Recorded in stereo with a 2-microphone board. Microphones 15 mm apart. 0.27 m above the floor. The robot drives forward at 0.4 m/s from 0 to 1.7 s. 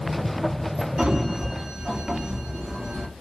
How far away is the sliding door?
About 2.5 m.